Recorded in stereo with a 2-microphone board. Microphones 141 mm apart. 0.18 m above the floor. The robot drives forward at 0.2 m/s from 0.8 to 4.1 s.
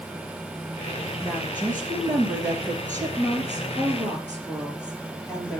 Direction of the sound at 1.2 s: 15° left (ahead or behind).